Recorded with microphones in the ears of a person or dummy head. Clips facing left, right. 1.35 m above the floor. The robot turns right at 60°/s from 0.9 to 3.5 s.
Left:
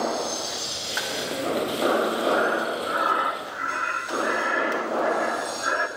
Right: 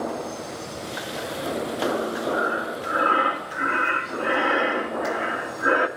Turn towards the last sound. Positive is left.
turn(degrees=-125)